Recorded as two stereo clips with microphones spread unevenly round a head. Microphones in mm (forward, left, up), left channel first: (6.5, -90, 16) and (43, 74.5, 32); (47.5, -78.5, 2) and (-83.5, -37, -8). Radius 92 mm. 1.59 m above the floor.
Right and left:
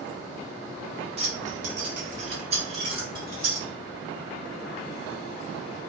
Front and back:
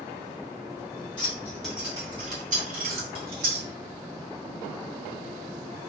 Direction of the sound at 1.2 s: 35° left.